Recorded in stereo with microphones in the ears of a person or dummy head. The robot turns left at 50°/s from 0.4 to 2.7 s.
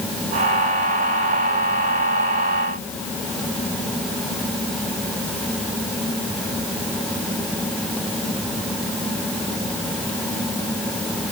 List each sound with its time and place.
Only background noise.